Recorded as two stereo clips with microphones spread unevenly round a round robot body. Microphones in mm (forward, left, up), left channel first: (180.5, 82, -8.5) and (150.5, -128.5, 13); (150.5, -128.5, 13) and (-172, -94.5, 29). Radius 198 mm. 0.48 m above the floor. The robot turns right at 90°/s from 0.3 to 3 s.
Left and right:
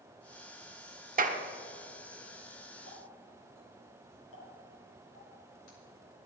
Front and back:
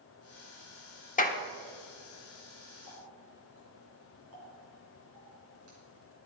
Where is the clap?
60° right, 1.2 m; by 1.4 s 40° right, 1.2 m.